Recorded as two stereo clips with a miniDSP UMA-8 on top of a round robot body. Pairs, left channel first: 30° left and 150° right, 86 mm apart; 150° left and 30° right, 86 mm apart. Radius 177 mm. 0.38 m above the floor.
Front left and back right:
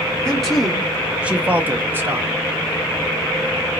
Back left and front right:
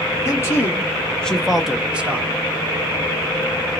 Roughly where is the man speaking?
Left.